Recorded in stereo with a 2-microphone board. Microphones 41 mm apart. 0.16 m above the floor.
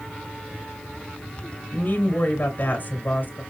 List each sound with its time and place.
1.7 s a woman speaking: 45° left (ahead or behind), 2.5 m